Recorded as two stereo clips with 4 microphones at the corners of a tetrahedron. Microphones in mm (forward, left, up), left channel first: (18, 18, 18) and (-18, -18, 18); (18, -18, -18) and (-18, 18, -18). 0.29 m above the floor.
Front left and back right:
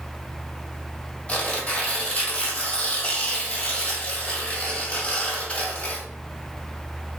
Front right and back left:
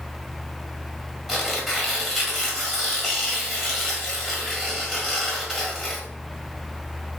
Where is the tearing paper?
60° left, 1.4 m.